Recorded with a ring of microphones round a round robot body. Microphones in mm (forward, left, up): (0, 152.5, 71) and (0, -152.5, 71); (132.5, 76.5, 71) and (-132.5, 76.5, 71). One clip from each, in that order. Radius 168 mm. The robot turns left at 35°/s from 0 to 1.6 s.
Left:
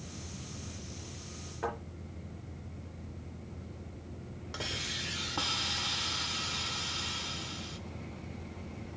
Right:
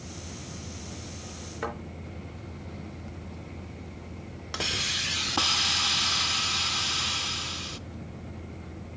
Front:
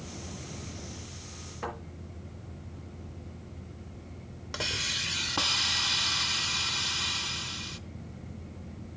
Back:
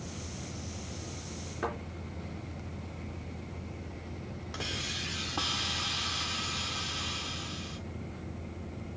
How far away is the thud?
About 4 m.